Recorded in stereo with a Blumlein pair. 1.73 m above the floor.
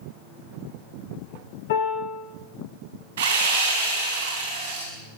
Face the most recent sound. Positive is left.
turn(degrees=-60)